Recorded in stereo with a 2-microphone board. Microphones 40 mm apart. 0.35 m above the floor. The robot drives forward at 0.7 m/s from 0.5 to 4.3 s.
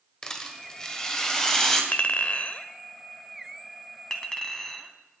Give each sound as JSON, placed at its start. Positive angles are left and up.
{"t": 0.2, "sound": "a rattle", "side_deg": 20, "distance_m": 1.5}
{"t": 1.9, "sound": "a clink", "side_deg": 35, "distance_m": 0.7}